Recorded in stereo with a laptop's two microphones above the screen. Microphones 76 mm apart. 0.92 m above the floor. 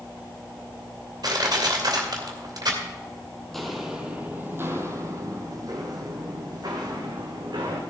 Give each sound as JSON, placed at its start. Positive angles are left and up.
{"t": 1.2, "sound": "crushing", "side_deg": -65, "distance_m": 2.5}
{"t": 3.5, "sound": "footsteps", "side_deg": 5, "distance_m": 1.3}